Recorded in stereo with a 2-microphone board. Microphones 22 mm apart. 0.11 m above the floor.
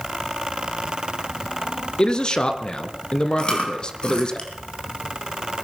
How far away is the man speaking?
About 1.6 m.